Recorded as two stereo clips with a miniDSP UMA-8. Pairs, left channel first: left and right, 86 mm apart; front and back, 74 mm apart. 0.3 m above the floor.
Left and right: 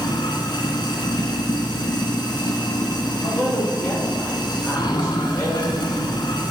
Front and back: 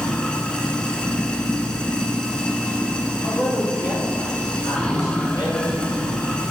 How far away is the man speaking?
About 2.5 m.